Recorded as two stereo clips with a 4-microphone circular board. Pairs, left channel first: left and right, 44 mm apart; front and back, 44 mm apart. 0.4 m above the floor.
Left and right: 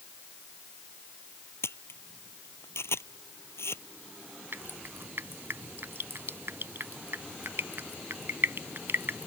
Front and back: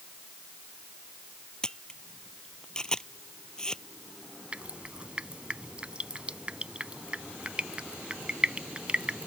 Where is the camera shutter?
75° left.